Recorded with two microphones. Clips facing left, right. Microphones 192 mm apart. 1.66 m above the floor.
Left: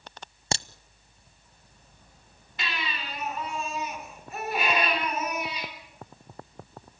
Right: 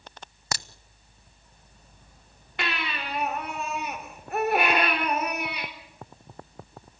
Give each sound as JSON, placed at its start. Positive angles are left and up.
{"t": 0.5, "sound": "a crack", "side_deg": 25, "distance_m": 0.5}
{"t": 2.6, "sound": "a baby crying", "side_deg": -60, "distance_m": 4.0}